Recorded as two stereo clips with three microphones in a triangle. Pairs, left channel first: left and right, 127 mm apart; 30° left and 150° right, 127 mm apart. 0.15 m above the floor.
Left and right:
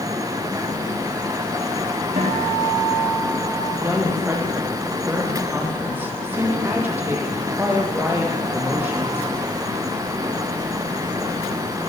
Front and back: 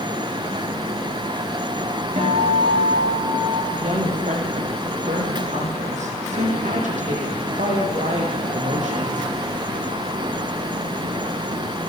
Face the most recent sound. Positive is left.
turn(degrees=-165)